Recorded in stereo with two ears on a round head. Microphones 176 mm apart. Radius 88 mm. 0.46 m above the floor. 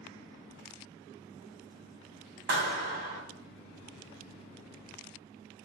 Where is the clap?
55° right (ahead or behind), 3 m.